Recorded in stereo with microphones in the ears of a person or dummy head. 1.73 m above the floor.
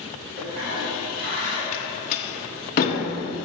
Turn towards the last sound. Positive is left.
turn(degrees=40)  # may be behind; listen again after turning